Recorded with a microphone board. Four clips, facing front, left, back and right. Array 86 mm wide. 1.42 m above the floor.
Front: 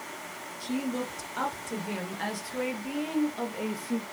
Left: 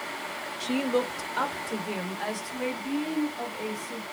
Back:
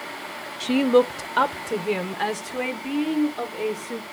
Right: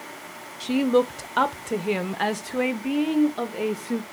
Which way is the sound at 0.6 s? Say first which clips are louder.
Right 6 dB, back 14 dB; 170° right.